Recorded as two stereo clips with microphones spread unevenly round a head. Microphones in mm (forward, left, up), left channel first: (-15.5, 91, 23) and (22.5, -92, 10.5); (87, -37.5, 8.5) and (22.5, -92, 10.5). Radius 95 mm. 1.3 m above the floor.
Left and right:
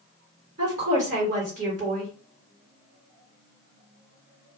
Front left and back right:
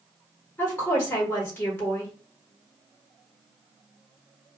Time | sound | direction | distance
0.6 | a woman speaking | 25° right | 1.3 m